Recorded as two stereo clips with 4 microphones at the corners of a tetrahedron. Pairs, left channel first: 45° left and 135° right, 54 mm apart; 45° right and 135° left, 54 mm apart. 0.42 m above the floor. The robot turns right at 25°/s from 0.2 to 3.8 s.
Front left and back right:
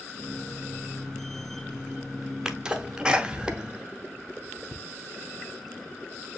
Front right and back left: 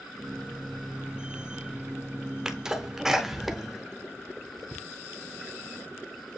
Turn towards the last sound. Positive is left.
turn(degrees=-145)